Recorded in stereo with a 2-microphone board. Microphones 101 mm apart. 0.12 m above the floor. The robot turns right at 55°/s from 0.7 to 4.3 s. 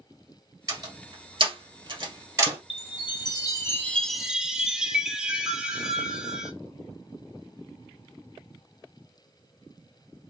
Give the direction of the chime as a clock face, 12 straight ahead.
9 o'clock.